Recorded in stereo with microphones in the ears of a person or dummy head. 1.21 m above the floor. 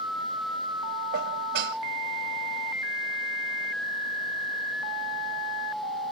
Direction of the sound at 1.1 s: 75° right (ahead or behind).